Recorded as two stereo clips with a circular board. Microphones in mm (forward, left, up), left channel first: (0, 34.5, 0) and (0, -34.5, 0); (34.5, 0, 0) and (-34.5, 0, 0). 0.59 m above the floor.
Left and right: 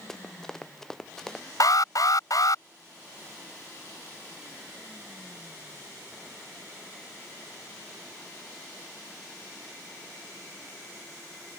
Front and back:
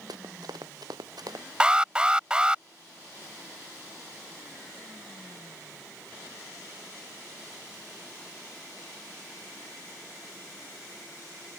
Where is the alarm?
105° left.